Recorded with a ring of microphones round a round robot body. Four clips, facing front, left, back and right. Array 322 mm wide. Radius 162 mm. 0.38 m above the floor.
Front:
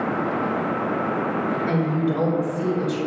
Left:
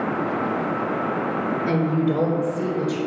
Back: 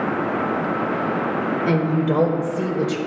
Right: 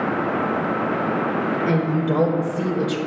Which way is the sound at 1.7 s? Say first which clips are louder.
Left 2 dB, back 5 dB; 175° right.